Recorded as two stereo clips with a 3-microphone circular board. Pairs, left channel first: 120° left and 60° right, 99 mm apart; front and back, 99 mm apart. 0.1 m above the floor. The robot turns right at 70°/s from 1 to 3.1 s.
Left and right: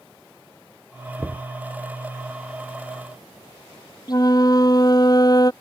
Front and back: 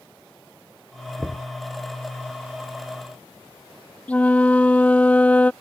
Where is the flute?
75° left.